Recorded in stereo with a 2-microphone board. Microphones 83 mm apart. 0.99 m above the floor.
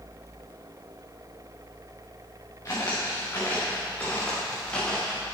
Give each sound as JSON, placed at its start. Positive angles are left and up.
{"t": 2.6, "sound": "footsteps", "side_deg": 35, "distance_m": 5.5}